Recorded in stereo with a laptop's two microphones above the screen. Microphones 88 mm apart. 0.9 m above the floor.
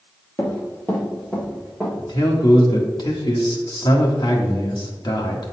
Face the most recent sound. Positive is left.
turn(degrees=60)  # may be behind; listen again after turning